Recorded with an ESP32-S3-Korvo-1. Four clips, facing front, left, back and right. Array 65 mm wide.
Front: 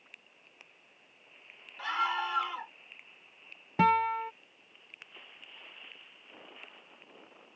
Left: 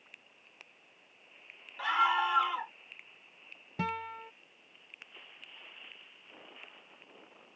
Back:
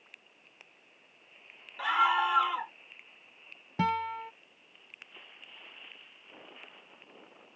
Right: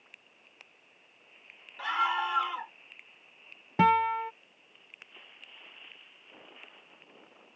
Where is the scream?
165° left.